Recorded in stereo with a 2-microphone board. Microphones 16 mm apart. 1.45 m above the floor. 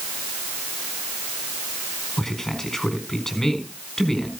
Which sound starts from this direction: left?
A man speaking, at 2.2 s.